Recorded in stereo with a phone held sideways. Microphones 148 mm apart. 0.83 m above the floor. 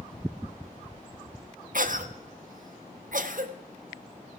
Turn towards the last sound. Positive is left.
turn(degrees=-65)  # may be behind; listen again after turning